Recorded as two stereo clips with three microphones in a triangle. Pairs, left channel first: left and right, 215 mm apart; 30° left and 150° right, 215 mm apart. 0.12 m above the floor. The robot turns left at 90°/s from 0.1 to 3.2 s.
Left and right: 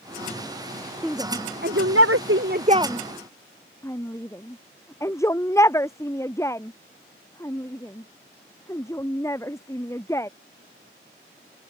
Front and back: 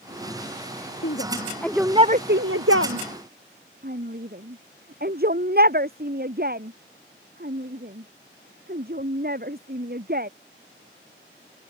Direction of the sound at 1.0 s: Straight ahead.